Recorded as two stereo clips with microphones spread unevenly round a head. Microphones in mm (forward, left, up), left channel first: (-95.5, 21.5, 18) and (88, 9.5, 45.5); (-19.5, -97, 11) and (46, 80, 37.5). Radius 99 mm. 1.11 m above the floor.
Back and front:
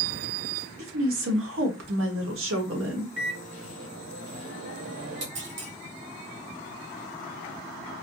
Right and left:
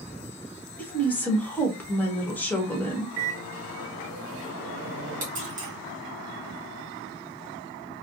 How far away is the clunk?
About 1.5 m.